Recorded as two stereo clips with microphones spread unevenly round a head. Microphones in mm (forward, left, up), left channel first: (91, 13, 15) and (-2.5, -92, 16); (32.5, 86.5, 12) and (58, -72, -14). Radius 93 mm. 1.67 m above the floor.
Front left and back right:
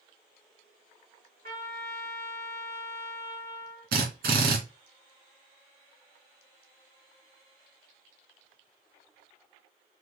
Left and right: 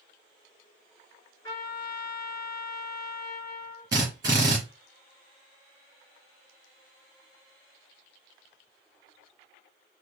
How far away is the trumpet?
About 3.5 m.